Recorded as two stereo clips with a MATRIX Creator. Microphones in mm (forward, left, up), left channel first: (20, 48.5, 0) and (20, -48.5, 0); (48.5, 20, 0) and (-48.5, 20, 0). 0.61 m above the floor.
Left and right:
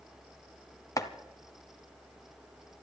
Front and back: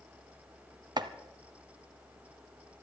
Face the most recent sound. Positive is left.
turn(degrees=140)